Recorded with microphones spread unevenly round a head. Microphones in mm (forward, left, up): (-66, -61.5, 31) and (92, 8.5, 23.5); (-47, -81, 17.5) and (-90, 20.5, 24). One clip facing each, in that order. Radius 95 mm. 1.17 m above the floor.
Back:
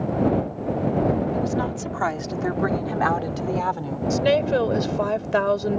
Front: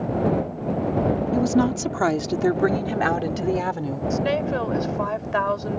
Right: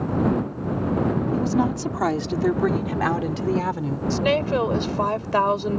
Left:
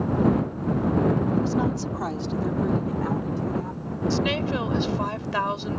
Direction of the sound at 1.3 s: 5° right.